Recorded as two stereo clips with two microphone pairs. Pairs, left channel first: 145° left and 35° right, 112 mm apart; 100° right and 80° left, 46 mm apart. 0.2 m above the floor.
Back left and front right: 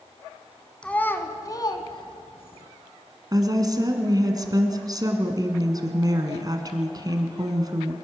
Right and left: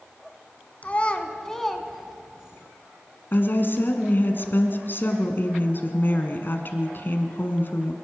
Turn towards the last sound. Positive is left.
turn(degrees=-80)